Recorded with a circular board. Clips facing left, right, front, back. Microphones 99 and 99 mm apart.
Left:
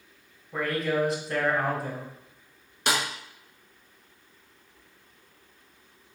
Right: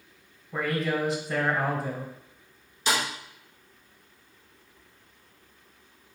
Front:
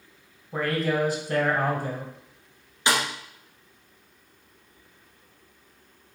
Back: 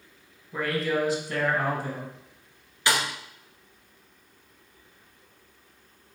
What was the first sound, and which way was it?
A man speaking, straight ahead.